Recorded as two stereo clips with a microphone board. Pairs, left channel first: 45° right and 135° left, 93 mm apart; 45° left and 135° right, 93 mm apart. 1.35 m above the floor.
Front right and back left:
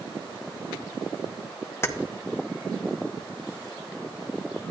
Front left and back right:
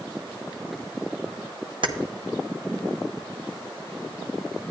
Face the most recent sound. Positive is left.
turn(degrees=-110)